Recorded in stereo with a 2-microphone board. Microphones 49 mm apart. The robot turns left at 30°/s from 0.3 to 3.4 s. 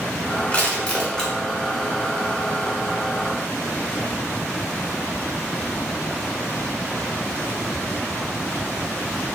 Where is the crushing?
25° left (ahead or behind), 0.9 m; by 1.3 s 10° left (ahead or behind), 0.9 m.